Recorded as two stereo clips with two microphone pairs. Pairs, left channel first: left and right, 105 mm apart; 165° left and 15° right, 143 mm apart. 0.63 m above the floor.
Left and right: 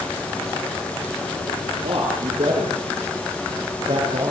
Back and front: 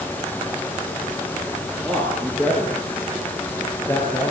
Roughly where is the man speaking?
Behind right.